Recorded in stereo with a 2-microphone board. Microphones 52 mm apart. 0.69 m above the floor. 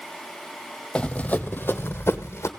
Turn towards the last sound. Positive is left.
turn(degrees=60)  # may be behind; listen again after turning